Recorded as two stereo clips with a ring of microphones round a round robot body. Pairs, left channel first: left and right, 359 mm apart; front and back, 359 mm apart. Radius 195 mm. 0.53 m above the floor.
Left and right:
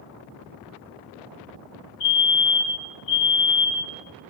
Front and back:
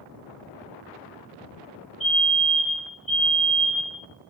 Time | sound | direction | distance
2.0 | a fire alarm | 90° left | 3.5 m